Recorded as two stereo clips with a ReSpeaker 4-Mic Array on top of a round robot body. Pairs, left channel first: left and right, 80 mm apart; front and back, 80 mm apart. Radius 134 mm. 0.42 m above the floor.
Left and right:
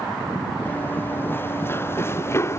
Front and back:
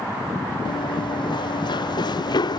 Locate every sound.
0.7 s running footsteps: 25° left; by 2.6 s 30° left